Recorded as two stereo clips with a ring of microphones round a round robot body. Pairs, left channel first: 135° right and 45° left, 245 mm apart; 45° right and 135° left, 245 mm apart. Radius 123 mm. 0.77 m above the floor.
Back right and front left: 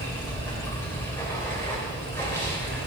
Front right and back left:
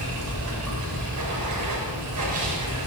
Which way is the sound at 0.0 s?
145° left.